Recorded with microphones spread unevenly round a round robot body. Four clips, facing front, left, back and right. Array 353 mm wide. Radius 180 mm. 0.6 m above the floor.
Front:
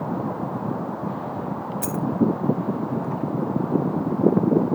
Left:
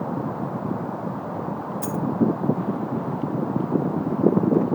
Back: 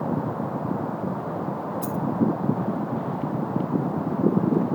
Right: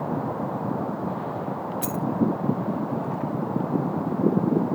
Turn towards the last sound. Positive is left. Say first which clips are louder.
# left 3 dB, front 3 dB
turn(degrees=-5)